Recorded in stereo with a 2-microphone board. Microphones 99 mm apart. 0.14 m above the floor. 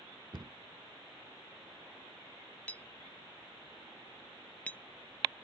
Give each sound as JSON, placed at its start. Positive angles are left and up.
{"t": 0.3, "sound": "a cupboard door", "side_deg": -50}
{"t": 2.7, "sound": "a clink", "side_deg": 15}